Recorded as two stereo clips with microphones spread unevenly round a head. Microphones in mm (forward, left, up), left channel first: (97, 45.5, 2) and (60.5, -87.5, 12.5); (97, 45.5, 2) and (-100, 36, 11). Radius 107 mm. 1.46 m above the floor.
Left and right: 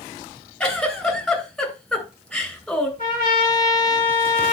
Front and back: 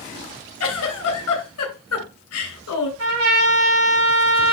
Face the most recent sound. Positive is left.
turn(degrees=-170)